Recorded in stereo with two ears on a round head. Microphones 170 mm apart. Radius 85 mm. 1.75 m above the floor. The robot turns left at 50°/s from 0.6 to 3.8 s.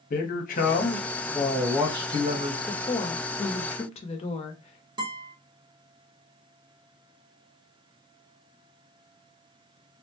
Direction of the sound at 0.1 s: 45° left.